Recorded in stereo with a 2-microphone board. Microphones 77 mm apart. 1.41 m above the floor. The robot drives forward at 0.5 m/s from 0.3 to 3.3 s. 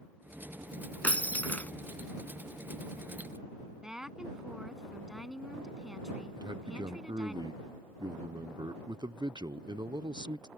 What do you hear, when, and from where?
1.0 s breaking glass: 20° left (ahead or behind)
3.8 s a woman speaking: 10° right (ahead or behind)
6.4 s a man speaking: 65° right (ahead or behind)